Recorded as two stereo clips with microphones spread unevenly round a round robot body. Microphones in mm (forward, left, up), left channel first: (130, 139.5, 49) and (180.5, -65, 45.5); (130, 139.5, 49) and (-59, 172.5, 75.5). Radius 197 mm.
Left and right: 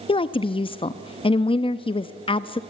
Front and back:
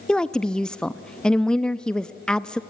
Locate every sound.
0.1 s a woman speaking: 60° left, 0.6 m